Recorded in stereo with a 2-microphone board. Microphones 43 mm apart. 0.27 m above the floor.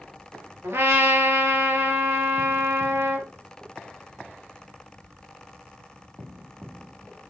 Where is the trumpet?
75° right (ahead or behind), 3 m.